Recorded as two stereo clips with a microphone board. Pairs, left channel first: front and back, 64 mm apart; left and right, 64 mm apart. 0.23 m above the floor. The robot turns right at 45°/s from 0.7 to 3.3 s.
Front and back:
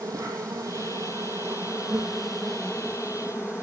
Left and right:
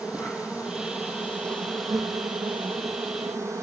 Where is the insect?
160° right, 3.5 m; by 3.6 s 40° right, 3.5 m.